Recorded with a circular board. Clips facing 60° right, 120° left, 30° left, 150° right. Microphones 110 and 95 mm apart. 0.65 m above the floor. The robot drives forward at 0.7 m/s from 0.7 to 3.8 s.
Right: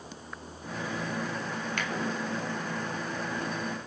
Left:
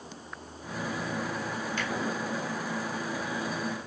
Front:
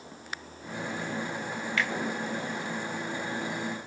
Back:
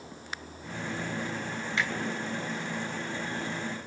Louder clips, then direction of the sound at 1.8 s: Left 1 dB, front 1 dB; 85° right.